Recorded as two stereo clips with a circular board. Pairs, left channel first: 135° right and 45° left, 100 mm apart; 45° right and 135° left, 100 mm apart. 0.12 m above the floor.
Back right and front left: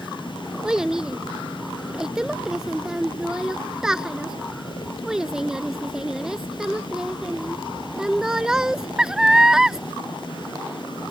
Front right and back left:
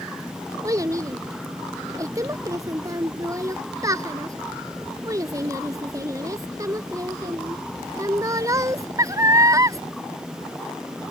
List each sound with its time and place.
0.6 s a child speaking: 125° left